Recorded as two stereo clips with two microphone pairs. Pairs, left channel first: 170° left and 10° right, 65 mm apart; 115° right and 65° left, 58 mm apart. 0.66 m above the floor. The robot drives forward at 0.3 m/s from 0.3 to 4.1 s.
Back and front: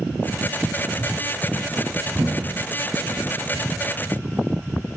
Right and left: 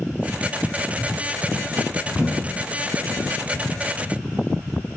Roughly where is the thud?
Ahead.